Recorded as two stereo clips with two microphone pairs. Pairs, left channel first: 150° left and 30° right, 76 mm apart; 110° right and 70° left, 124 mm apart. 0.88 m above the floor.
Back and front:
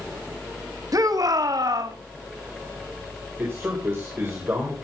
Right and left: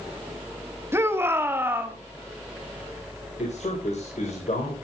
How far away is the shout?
About 1.6 m.